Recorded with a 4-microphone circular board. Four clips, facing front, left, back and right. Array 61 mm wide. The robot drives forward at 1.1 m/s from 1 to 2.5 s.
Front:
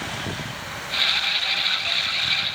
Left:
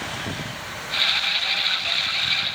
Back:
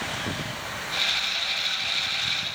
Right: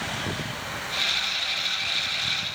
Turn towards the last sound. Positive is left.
No sound to turn to.